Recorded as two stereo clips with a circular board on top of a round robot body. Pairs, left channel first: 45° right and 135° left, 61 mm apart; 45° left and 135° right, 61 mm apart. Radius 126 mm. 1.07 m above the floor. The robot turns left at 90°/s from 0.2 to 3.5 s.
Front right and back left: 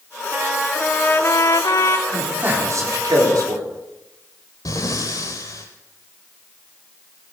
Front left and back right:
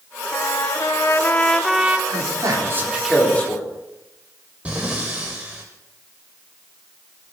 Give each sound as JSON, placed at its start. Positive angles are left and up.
{"t": 0.3, "sound": "a trumpet", "azimuth_deg": 75, "distance_m": 1.1}
{"t": 2.1, "sound": "a man speaking", "azimuth_deg": -130, "distance_m": 4.0}
{"t": 4.7, "sound": "breathing", "azimuth_deg": -65, "distance_m": 0.8}